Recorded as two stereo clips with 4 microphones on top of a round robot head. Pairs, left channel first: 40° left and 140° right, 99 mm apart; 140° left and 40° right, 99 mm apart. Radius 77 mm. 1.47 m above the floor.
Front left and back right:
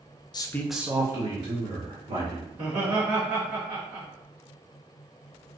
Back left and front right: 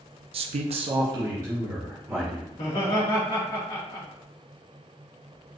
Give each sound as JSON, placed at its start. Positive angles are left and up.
{"t": 0.3, "sound": "a man speaking", "azimuth_deg": -10, "distance_m": 0.6}
{"t": 2.5, "sound": "laughter", "azimuth_deg": 170, "distance_m": 1.2}